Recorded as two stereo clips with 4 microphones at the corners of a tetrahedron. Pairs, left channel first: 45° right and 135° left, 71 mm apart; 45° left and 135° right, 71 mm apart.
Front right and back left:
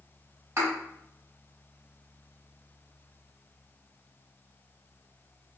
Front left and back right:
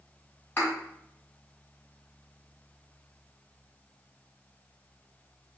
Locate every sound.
0.6 s a thud: 95° left, 1.2 m